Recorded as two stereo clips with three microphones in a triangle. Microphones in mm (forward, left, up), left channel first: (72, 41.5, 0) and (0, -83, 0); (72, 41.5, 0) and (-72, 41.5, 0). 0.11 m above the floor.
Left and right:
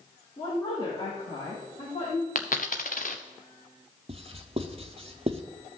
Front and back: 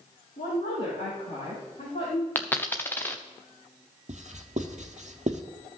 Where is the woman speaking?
10° left, 4.5 m; by 2.2 s 35° left, 5.5 m.